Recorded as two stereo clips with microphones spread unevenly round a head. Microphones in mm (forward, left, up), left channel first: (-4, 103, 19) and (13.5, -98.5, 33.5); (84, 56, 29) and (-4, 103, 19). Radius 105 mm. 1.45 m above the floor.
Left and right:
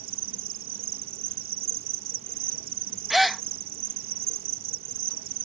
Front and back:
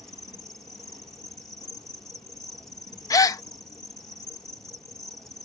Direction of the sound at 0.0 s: 115° right.